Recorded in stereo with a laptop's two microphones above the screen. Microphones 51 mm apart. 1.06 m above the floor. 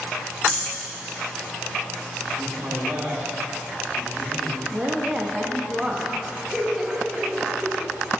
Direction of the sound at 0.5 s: 5° left (ahead or behind).